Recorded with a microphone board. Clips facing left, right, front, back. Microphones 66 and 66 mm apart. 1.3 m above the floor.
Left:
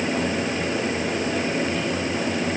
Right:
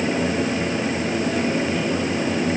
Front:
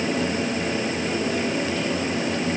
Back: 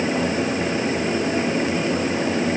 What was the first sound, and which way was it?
Only background noise.